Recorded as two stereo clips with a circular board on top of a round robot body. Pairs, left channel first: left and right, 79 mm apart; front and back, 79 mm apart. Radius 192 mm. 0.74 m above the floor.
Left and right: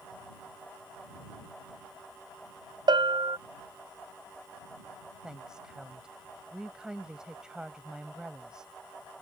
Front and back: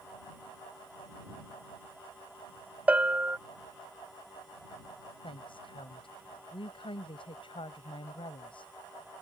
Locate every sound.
2.9 s a bell: 105° right
5.2 s a woman speaking: 10° right